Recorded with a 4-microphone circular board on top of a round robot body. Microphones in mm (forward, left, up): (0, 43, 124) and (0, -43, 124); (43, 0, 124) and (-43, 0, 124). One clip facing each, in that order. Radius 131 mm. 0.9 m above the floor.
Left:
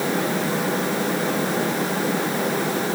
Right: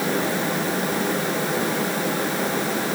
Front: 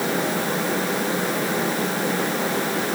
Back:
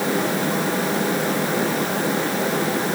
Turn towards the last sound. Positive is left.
No sound to turn to.